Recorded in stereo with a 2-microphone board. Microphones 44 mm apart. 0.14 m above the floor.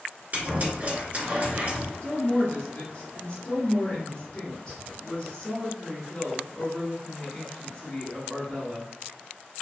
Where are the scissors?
40° right (ahead or behind), 1.9 m.